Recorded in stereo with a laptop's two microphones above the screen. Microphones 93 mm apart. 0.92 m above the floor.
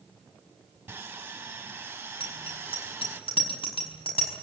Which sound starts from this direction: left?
A bicycle bell, at 2.2 s.